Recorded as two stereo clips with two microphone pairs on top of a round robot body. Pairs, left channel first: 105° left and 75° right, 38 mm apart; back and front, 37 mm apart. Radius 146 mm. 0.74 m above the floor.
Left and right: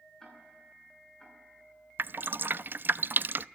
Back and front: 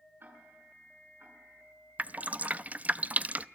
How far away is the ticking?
About 8 m.